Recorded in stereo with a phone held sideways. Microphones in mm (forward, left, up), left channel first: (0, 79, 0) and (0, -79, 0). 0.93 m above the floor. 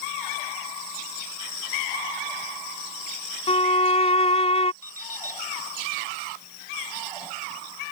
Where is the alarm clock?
70° right (ahead or behind).